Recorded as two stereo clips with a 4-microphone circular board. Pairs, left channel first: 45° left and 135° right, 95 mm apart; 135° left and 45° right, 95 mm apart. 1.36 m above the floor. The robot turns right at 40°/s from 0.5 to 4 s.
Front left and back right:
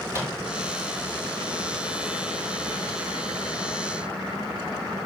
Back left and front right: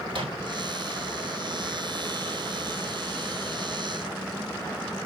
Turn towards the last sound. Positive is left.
turn(degrees=70)